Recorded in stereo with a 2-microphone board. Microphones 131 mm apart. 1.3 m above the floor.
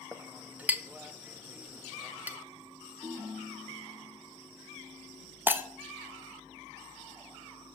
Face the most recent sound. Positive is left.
turn(degrees=-15)  # may be behind; listen again after turning